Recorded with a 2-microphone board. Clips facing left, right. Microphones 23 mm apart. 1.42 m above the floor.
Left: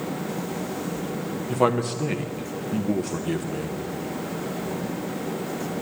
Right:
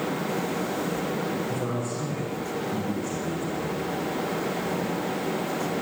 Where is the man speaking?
80° left, 0.9 m.